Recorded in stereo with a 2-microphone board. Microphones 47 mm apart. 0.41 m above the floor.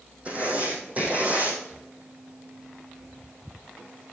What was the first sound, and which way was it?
Writing, 30° right (ahead or behind).